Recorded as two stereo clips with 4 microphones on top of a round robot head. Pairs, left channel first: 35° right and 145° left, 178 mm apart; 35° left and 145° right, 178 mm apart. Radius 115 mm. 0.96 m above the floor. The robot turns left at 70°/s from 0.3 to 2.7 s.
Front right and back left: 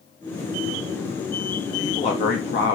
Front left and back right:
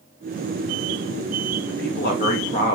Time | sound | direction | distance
1.7 | a man speaking | 45° left | 0.9 m